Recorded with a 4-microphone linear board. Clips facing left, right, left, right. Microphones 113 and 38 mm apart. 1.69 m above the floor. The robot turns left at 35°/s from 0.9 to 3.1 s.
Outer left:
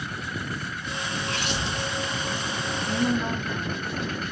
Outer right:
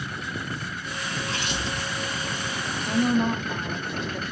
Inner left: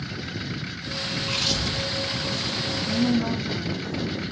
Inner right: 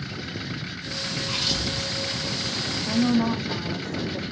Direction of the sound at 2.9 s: 70° right (ahead or behind).